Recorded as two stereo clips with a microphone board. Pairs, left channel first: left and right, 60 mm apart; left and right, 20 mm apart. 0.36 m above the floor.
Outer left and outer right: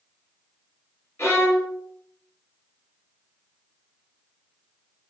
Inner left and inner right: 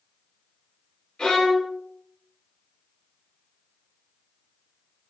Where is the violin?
55° left (ahead or behind), 1.6 m.